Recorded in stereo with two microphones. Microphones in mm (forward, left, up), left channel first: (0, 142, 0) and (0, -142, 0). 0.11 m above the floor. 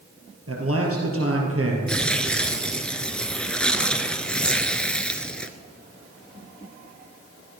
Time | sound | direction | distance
0.5 | a man speaking | 55° right (ahead or behind) | 3 m
1.9 | tearing paper | 5° left (ahead or behind) | 0.8 m